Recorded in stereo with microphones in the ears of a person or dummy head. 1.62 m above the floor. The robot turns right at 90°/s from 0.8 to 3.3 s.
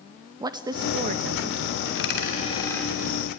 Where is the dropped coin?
70° left (ahead or behind), 2.5 m; by 2.9 s centre (ahead or behind), 2.5 m.